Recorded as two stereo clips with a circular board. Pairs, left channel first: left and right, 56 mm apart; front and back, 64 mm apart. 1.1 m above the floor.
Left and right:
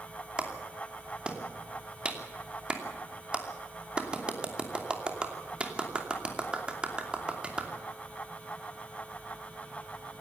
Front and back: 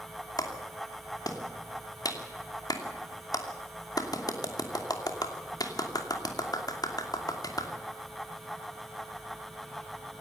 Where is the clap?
20° right, 2.5 m.